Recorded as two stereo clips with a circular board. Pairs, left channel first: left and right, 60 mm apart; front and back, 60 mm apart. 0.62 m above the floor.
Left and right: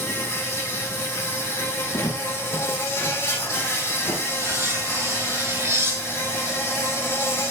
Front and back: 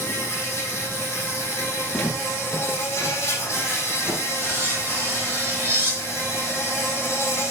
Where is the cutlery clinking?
125° right, 5.5 m.